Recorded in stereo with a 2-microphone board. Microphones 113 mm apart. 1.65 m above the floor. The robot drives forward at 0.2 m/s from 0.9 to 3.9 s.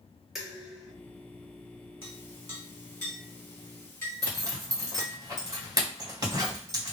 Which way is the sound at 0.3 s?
5° right (ahead or behind).